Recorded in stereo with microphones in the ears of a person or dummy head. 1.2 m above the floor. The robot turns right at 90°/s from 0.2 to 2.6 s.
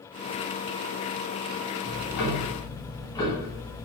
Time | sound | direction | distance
1.8 | ticking | 95° left | 0.7 m